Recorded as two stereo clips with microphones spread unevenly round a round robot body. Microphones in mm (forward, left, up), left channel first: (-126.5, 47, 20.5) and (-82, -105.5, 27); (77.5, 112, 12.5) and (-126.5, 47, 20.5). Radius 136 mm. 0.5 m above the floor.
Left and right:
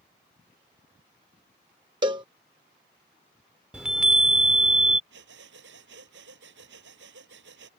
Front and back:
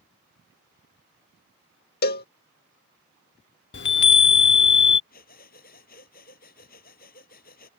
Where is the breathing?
45° right.